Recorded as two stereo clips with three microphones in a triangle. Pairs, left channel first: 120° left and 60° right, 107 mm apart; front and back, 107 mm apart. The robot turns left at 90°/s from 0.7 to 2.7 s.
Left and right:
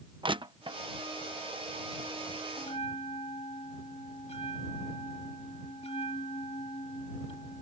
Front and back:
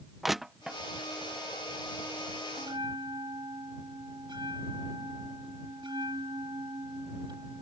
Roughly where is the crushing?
Right.